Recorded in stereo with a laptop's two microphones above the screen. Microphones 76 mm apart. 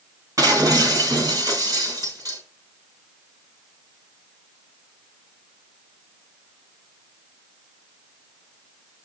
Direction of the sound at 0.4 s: 45° right (ahead or behind).